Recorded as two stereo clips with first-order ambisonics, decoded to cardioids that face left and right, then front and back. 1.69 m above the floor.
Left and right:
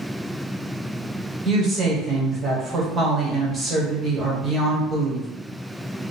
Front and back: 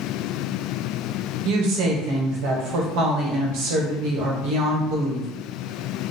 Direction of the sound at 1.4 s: 160° right.